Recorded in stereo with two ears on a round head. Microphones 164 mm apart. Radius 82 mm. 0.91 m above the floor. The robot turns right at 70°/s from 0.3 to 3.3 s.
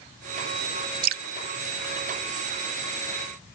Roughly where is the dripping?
Right.